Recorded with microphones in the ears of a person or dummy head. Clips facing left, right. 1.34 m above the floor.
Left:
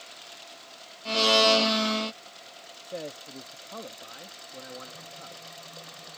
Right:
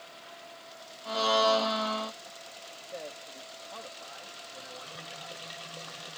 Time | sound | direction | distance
1.1 | a blender | 35° left (ahead or behind) | ?
2.8 | a man speaking | 50° left (ahead or behind) | ?